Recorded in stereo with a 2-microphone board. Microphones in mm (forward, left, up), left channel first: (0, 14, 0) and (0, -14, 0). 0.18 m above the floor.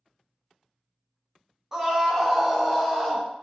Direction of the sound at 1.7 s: 15° right (ahead or behind).